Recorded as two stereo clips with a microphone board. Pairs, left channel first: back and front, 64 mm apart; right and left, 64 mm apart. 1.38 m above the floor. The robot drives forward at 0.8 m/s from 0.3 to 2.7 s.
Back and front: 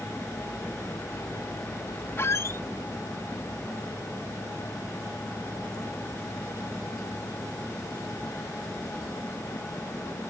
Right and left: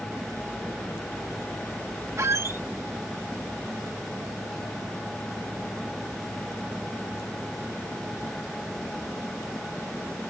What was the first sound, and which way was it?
A squeak, 130° left.